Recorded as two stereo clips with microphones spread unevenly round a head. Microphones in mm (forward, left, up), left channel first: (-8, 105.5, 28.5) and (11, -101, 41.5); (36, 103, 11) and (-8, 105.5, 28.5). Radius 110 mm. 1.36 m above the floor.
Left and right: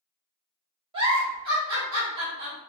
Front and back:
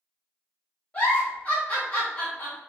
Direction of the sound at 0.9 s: 100° right.